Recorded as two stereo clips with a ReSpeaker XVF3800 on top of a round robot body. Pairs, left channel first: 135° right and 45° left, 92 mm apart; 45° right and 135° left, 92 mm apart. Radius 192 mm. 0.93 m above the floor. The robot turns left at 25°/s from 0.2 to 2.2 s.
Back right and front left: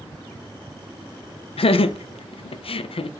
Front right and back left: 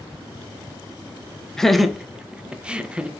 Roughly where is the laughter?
Behind right.